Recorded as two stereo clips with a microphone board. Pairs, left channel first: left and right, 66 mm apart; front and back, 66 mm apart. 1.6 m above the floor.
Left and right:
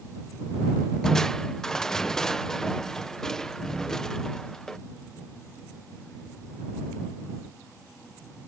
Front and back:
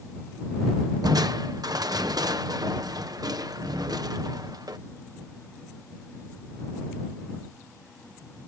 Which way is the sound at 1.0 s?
170° left.